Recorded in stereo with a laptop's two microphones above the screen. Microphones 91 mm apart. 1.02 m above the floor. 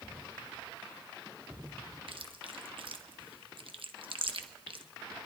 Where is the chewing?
70° right (ahead or behind), 0.9 m.